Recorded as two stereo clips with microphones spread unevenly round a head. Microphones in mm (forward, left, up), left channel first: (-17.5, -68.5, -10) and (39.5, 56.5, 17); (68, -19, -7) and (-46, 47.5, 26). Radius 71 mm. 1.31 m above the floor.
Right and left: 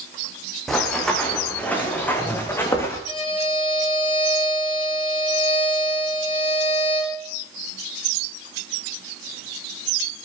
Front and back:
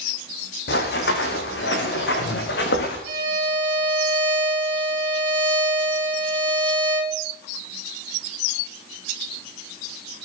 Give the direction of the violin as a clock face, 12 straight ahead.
6 o'clock.